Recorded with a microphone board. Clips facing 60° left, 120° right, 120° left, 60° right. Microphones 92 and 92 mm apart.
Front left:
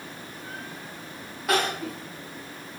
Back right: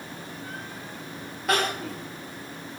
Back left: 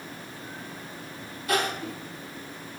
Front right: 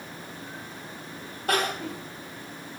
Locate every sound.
1.5 s crying: 30° right, 1.5 m